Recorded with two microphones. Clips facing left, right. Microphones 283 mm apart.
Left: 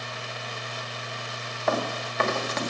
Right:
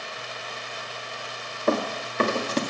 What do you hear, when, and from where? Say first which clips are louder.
1.7 s running footsteps: right 3 dB; 35° right (ahead or behind), 1.9 m